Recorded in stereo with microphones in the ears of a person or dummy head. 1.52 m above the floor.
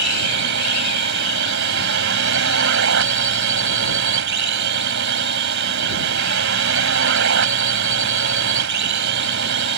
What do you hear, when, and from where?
0.0 s a drone: 70° right (ahead or behind)